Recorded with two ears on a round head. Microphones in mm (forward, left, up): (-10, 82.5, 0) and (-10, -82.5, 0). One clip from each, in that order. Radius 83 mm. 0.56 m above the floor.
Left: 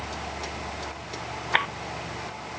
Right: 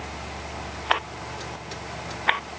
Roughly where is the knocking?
I don't hear knocking.